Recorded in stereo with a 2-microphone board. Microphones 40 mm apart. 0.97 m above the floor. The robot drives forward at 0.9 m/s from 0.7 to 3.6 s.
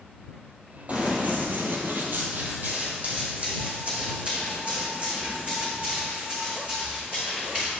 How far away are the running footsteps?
About 2 m.